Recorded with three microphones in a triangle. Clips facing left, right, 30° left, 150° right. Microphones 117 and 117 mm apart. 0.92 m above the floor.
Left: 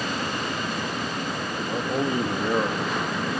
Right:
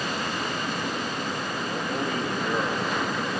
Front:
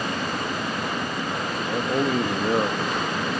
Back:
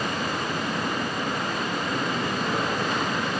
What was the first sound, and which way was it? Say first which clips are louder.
A man speaking: left 5 dB, front 4 dB; 25° left.